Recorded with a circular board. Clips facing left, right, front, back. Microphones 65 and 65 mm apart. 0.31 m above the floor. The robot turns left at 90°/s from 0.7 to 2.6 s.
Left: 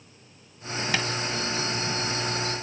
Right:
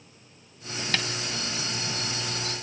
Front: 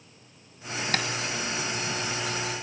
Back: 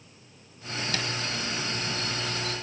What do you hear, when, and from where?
0.9 s tapping: 15° left, 1.1 m; by 1.1 s 5° left, 1.1 m